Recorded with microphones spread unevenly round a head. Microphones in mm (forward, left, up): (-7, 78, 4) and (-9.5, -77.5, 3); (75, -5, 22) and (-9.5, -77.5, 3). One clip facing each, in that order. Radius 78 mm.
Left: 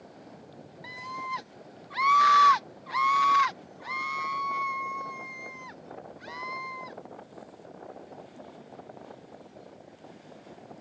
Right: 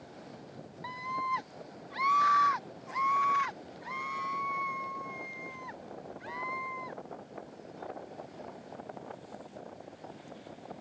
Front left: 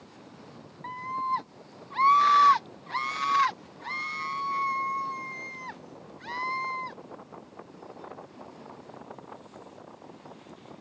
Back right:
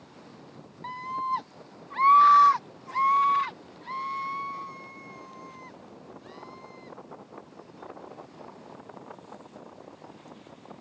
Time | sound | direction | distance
0.8 | a scream | 150° left | ?